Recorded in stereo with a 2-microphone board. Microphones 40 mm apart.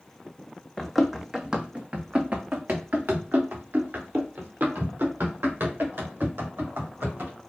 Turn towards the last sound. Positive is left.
turn(degrees=-85)